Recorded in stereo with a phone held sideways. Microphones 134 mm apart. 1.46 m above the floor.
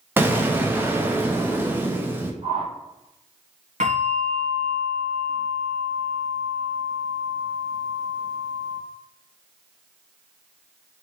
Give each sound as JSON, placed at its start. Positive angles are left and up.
{"t": 0.2, "sound": "an explosion", "side_deg": -15, "distance_m": 0.5}
{"t": 2.4, "sound": "a whoosh", "side_deg": -50, "distance_m": 1.0}
{"t": 3.8, "sound": "a bell", "side_deg": -60, "distance_m": 1.4}